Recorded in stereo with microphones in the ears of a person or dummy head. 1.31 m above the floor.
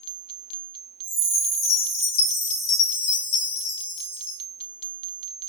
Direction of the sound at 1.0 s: 75° left (ahead or behind).